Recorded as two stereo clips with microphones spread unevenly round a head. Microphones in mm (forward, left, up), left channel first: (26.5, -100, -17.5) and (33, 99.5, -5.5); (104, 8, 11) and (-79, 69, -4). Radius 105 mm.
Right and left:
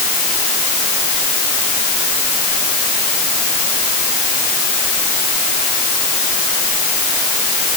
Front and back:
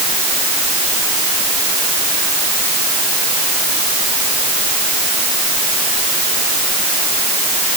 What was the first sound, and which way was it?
Only background noise.